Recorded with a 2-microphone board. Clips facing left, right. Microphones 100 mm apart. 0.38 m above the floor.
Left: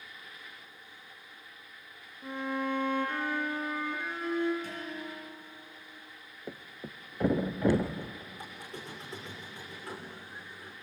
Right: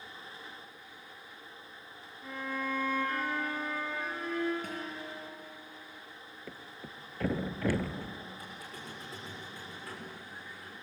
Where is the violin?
25° left (ahead or behind), 6.5 m.